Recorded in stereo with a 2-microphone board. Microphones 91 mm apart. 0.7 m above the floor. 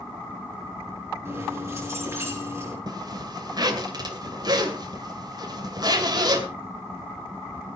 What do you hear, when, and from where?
1.2 s keys jangling: 30° right (ahead or behind), 7.5 m
2.9 s a zipper: 50° right (ahead or behind), 2 m